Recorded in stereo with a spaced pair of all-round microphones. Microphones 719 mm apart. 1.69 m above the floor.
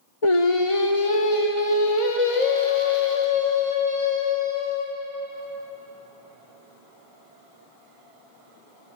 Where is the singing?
45° left (ahead or behind), 0.8 m.